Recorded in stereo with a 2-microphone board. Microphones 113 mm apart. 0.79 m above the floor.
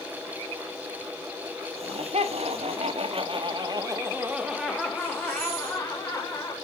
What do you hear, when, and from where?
1.8 s laughter: 65° right (ahead or behind), 3.5 m; by 6.5 s 25° left (ahead or behind), 4 m